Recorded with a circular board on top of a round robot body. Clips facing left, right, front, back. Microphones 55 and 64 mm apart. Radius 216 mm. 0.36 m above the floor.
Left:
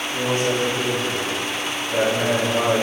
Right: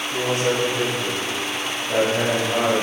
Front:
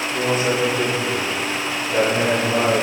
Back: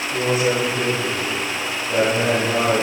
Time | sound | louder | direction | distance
0.1 | a man speaking | even, back 1 dB | 95° right | 4 m